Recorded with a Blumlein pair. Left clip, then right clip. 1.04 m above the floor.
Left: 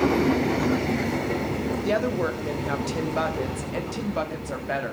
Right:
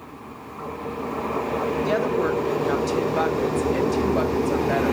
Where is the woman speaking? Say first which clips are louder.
Right 1 dB; straight ahead, 2 m.